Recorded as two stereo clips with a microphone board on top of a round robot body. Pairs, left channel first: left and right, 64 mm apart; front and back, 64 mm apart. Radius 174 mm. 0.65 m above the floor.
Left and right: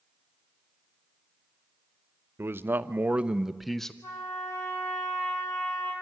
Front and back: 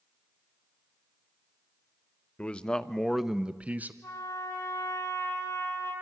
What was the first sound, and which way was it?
A man speaking, 60° right.